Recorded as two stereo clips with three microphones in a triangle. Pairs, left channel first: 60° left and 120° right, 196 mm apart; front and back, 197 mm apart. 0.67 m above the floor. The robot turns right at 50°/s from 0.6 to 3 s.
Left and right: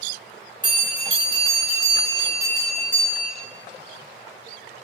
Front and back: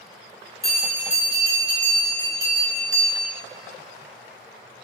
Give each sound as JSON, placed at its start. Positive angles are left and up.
{"t": 0.6, "sound": "a bell", "azimuth_deg": 20, "distance_m": 1.5}